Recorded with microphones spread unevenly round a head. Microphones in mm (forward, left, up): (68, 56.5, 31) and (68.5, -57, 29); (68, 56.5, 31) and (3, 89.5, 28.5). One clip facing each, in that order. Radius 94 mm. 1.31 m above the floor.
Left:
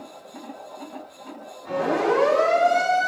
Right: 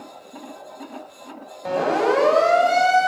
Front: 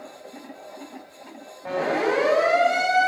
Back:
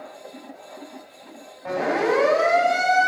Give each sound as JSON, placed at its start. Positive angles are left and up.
{"t": 1.6, "sound": "a siren", "azimuth_deg": -120, "distance_m": 7.5}